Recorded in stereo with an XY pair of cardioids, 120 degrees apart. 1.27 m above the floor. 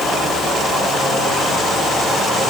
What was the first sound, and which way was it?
Only background noise.